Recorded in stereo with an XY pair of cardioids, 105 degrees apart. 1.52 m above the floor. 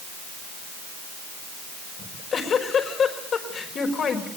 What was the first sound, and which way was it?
A giggle, 50° left.